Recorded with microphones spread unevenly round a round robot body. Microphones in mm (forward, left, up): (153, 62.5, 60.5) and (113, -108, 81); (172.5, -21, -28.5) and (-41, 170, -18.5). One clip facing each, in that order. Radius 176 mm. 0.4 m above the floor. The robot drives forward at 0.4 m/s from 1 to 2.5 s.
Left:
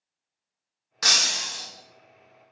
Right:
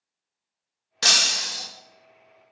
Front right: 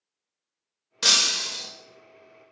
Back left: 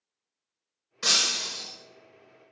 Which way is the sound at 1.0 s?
40° right.